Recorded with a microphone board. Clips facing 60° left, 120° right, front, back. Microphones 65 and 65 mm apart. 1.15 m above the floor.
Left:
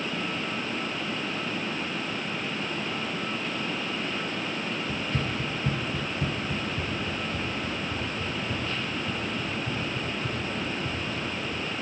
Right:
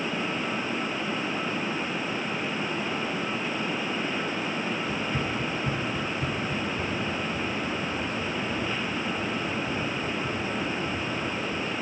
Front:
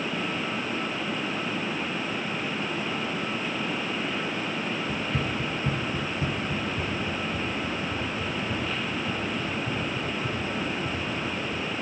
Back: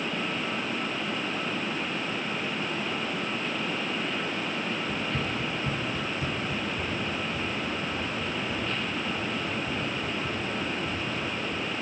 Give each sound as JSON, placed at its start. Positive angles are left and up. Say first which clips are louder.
{"t": 4.9, "sound": "running footsteps", "louder": "right 1 dB, front 1 dB", "azimuth_deg": 30, "distance_m": 1.1}